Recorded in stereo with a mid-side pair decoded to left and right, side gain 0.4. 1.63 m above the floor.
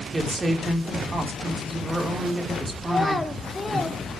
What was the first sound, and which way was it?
A woman speaking, 30° right.